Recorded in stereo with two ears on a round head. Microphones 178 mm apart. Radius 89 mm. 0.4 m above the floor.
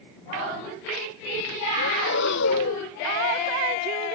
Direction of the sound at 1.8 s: 60° left (ahead or behind).